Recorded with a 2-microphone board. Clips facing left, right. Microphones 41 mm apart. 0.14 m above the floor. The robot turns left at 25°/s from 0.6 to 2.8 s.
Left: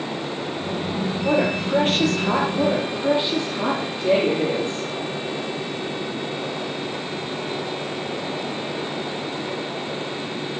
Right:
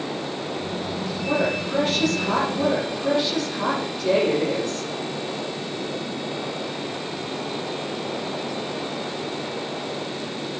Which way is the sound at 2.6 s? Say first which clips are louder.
Left 1 dB; 25° left (ahead or behind).